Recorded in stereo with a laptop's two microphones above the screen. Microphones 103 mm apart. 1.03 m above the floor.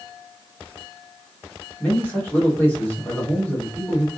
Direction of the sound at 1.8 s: 20° left (ahead or behind).